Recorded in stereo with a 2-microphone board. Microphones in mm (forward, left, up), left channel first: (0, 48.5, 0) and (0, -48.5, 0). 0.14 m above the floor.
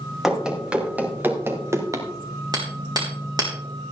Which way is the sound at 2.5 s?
45° right (ahead or behind).